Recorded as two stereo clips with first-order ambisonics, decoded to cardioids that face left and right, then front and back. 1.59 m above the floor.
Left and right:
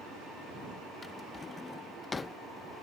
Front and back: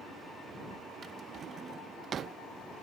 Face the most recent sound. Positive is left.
turn(degrees=150)